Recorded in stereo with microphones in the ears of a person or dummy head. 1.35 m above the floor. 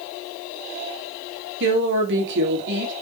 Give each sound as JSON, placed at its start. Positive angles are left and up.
{"t": 1.6, "sound": "a woman speaking", "side_deg": -65, "distance_m": 2.5}